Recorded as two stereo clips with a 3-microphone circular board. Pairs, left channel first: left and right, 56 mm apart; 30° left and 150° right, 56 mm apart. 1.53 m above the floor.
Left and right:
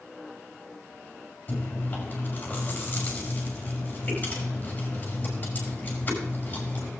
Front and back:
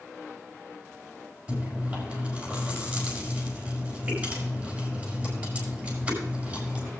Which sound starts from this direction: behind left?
Chewing, at 1.5 s.